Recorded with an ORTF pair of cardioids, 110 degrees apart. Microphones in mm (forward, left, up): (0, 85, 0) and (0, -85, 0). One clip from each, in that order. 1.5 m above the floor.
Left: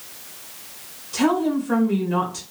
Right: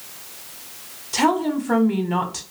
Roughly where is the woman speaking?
Ahead right.